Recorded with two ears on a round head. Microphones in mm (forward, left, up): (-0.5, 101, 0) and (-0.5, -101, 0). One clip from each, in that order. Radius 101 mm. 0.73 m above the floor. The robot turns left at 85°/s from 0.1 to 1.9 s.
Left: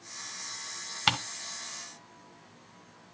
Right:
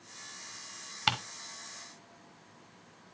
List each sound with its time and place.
1.1 s ticking: 5° left (ahead or behind), 1.1 m; by 1.2 s 10° left (ahead or behind), 1.1 m